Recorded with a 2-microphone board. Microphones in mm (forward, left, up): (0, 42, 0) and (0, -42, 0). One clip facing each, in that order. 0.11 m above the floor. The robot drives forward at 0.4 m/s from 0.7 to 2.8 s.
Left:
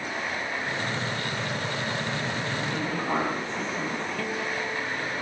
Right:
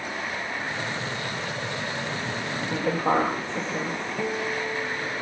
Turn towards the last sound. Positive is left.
turn(degrees=-20)  # may be behind; listen again after turning